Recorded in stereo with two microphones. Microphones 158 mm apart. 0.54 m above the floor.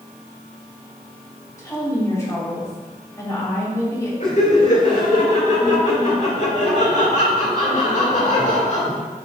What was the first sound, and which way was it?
A woman speaking, 20° left (ahead or behind).